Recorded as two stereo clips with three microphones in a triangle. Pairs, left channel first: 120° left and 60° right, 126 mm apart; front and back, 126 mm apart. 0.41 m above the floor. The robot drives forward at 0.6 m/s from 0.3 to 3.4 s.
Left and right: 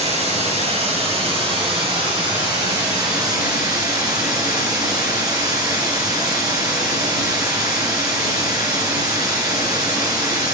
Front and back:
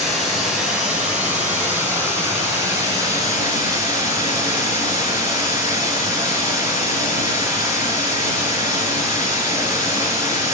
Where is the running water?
95° right, 3.5 m; by 10.6 s 120° right, 4 m.